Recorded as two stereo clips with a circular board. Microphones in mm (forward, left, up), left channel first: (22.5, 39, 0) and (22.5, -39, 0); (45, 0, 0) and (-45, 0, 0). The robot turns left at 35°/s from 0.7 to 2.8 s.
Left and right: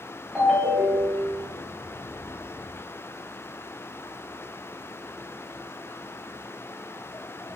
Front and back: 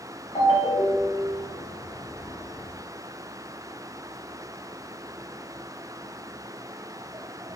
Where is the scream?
No scream in this recording.